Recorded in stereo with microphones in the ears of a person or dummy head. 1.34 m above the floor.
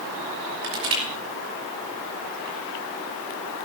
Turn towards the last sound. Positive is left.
turn(degrees=-80)